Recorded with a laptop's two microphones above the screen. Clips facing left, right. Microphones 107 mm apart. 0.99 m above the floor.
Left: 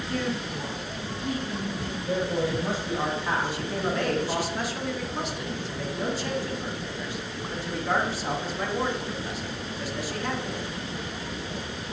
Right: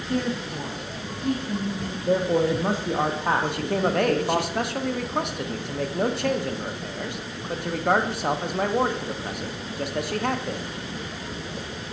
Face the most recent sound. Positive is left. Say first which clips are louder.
# right 5 dB
turn(degrees=-60)  # may be behind; listen again after turning